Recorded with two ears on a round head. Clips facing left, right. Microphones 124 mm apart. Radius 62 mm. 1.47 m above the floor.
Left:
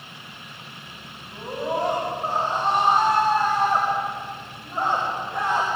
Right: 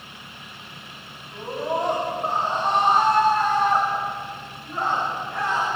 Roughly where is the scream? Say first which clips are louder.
Right 1 dB; centre.